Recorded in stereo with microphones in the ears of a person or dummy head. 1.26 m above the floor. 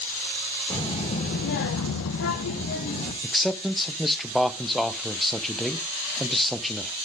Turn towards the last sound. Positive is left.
turn(degrees=0)  # may be behind; listen again after turning